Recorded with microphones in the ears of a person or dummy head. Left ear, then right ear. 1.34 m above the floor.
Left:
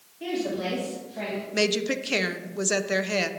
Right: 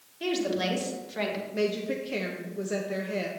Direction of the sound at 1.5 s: 40° left (ahead or behind).